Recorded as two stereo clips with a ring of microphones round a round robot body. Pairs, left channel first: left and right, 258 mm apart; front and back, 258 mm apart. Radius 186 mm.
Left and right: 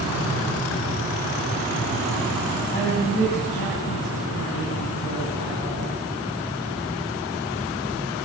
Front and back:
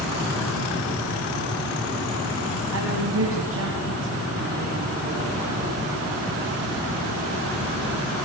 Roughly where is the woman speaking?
Behind.